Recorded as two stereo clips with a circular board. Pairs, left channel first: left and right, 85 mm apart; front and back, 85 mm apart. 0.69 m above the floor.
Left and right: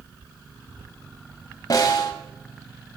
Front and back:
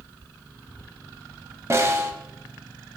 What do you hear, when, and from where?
1.7 s a snare drum: 130° left, 1.5 m